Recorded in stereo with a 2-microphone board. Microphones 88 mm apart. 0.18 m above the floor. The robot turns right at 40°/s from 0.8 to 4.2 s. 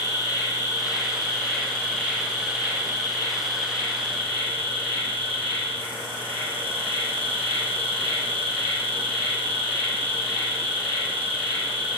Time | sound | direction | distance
0.0 | an insect | 140° left | 2.0 m